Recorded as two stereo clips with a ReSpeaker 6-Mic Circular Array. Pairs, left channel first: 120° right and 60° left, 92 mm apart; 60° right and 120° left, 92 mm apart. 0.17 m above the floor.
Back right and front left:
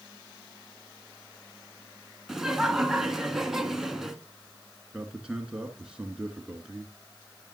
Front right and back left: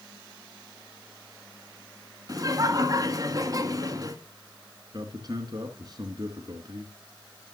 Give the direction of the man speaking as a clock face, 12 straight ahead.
7 o'clock.